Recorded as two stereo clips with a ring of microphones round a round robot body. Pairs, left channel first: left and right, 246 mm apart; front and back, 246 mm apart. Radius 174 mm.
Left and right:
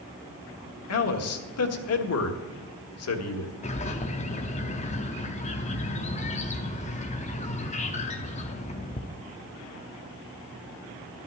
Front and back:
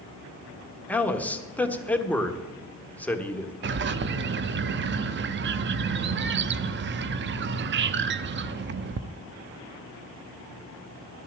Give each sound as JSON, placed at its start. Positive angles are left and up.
{"t": 0.9, "sound": "a man speaking", "azimuth_deg": 85, "distance_m": 1.4}
{"t": 3.6, "sound": "a bird", "azimuth_deg": 150, "distance_m": 0.5}